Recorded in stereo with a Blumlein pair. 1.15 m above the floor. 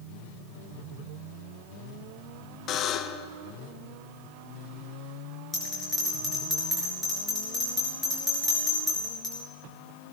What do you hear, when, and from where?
2.7 s a buzzer: 30° left, 0.7 m
5.5 s a bell: 5° left, 6 m